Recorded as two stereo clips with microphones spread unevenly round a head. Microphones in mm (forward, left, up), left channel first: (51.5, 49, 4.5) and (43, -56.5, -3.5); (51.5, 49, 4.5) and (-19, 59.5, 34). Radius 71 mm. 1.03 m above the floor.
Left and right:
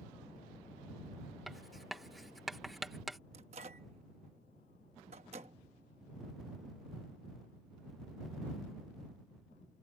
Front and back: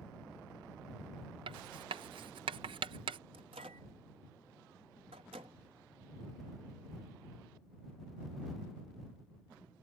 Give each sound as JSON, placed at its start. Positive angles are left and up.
{"t": 1.5, "sound": "writing", "azimuth_deg": 180}
{"t": 3.3, "sound": "a microwave", "azimuth_deg": -145}